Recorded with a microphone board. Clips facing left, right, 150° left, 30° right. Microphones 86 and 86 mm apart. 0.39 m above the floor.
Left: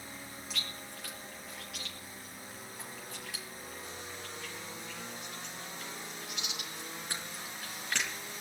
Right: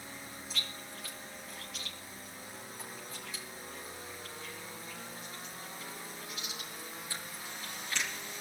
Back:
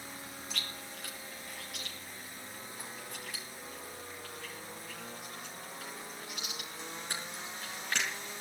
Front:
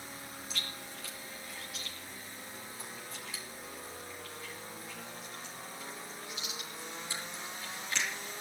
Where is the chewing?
115° left, 7 m.